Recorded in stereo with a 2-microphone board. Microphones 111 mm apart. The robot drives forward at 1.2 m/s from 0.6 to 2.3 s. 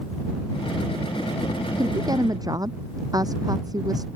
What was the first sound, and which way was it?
A woman speaking, 35° right (ahead or behind).